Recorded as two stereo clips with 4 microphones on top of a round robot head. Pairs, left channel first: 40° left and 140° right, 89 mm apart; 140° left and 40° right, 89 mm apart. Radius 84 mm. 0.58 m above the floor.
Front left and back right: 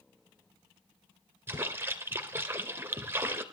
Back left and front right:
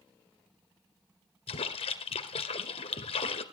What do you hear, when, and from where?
1.5 s a splash: 150° left, 1.6 m